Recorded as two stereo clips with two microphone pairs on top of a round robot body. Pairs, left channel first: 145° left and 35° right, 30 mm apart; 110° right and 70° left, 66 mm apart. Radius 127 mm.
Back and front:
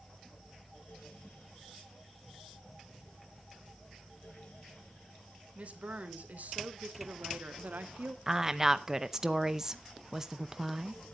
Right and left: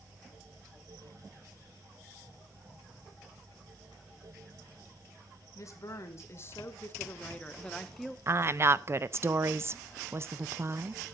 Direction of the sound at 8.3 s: 35° left.